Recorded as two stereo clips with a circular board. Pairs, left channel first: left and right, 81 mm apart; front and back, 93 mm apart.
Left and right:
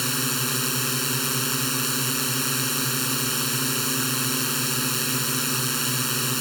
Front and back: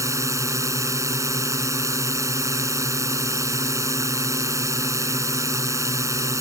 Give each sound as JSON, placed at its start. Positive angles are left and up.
{"t": 0.0, "sound": "a drone", "azimuth_deg": 180}